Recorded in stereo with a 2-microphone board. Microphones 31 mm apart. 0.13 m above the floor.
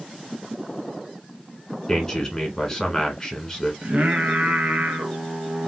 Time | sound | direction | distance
1.9 | a man speaking | 20° left (ahead or behind) | 1.1 m
3.8 | singing | 45° right (ahead or behind) | 0.9 m